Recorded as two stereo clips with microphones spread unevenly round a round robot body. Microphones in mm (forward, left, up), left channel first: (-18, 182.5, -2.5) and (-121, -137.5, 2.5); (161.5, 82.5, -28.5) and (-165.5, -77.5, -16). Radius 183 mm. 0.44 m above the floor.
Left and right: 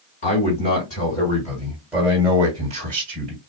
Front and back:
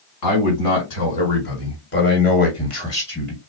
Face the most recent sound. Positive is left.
turn(degrees=-60)